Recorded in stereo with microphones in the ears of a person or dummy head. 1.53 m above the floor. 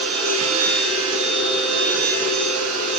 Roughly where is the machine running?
Right.